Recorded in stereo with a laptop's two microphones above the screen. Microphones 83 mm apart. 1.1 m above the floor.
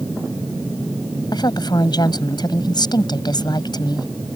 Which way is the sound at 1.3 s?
60° left (ahead or behind).